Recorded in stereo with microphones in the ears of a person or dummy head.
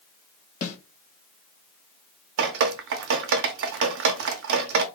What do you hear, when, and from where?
0.6 s a snare drum: 50° left (ahead or behind), 1.4 m
2.4 s dripping: 60° right (ahead or behind), 0.6 m